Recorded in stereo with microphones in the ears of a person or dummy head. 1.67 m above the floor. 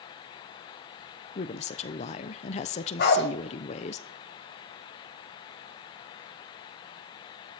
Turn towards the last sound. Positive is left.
turn(degrees=55)  # may be behind; listen again after turning